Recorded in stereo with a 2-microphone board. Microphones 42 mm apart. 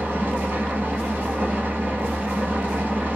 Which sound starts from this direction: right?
An engine running, at 0.0 s.